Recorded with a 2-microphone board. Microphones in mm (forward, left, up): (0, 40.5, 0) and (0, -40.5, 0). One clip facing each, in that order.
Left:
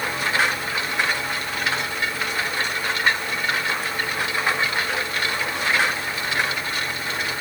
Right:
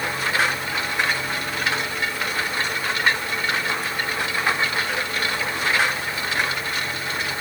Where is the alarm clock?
I don't hear an alarm clock.